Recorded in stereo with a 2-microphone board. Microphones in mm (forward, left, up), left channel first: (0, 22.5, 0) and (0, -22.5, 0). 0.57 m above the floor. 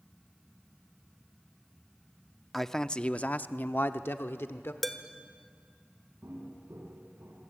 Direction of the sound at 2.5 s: Centre (ahead or behind).